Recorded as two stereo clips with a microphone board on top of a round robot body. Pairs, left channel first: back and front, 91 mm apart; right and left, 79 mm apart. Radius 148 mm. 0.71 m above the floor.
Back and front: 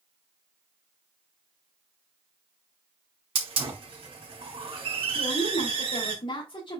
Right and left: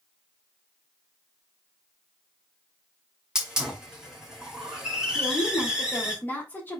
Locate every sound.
3.4 s a hiss: 10° left, 3.5 m
5.2 s a woman speaking: 155° right, 3.5 m